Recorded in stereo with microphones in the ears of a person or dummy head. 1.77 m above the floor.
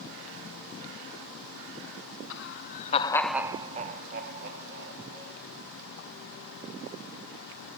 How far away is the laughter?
About 0.9 m.